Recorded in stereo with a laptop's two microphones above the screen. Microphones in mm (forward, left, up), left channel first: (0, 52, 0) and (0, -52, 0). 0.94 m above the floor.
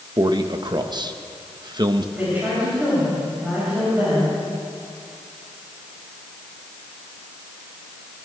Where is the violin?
I don't hear a violin.